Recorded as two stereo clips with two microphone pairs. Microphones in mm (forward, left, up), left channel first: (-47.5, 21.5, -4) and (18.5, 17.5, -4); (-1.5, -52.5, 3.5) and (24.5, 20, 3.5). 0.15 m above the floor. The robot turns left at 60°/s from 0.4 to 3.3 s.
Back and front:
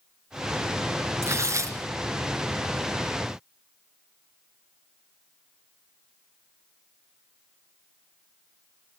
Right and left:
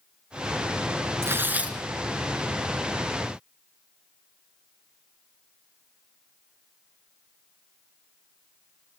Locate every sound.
1.2 s tearing paper: 25° left, 2 m; by 1.8 s 5° right, 2 m